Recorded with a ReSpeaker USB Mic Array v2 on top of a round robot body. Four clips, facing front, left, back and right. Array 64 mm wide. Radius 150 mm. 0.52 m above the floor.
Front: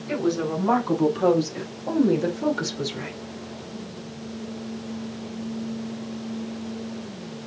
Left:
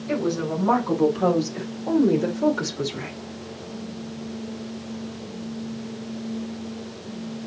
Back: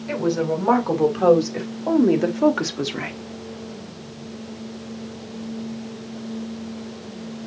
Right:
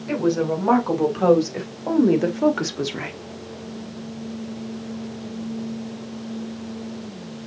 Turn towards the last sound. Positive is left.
turn(degrees=-140)